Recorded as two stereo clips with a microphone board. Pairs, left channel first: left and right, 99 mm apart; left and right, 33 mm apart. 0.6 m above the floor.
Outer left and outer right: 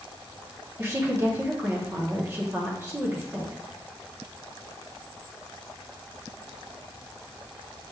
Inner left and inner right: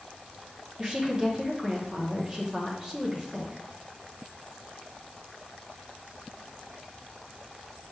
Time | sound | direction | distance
0.8 | a woman speaking | 25° right (ahead or behind) | 1.0 m